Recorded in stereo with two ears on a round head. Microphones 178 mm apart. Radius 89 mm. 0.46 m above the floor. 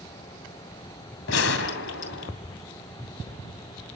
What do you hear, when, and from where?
1.3 s a gunshot: 70° left (ahead or behind), 2.5 m